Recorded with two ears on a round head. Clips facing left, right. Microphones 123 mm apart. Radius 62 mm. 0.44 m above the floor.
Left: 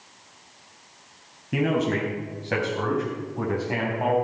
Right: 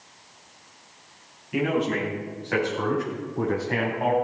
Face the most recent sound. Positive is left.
turn(degrees=5)  # may be behind; listen again after turning